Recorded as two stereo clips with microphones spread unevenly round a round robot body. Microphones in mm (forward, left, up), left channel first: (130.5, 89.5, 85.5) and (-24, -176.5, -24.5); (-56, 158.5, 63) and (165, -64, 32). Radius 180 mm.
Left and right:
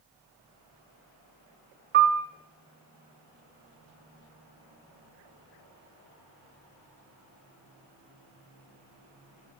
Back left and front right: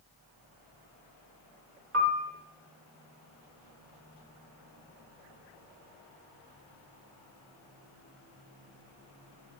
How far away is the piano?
About 0.6 m.